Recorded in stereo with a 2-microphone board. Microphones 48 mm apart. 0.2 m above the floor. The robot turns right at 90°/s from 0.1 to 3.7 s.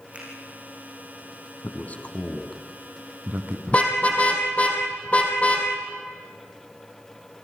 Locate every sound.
0.1 s a finger snap: 25° right (ahead or behind), 8 m; by 0.3 s 35° right (ahead or behind), 8 m
1.6 s a man speaking: 40° left (ahead or behind), 2.0 m; by 3.6 s 40° right (ahead or behind), 2.0 m
3.7 s a car horn: 30° left (ahead or behind), 3.5 m